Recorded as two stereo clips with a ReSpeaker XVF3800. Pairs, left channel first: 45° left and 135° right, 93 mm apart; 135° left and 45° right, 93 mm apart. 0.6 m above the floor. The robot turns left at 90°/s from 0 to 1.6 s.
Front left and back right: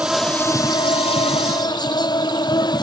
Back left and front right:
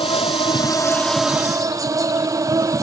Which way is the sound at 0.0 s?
150° left.